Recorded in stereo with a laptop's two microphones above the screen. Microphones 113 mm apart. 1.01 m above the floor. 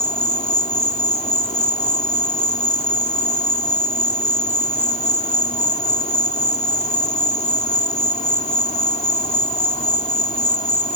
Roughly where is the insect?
Left.